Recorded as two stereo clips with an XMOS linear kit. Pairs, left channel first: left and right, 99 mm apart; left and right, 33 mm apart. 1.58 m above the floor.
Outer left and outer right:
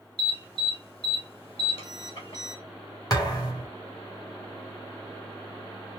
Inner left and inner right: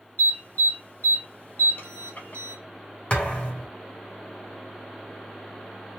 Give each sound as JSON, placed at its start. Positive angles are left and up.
{"t": 0.2, "sound": "an alarm", "side_deg": 70, "distance_m": 2.5}
{"t": 3.1, "sound": "a thud", "side_deg": 40, "distance_m": 1.9}